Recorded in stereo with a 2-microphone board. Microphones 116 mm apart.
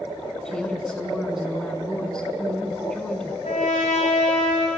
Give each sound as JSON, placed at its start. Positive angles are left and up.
{"t": 0.5, "sound": "a woman speaking", "side_deg": 5, "distance_m": 1.3}
{"t": 3.4, "sound": "a trumpet", "side_deg": 80, "distance_m": 4.0}